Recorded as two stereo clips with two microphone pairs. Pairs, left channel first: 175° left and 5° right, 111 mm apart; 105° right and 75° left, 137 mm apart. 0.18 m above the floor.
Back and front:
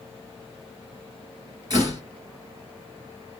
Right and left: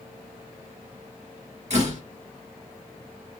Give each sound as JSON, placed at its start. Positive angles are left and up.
{"t": 1.7, "sound": "a door slam", "azimuth_deg": 45, "distance_m": 1.7}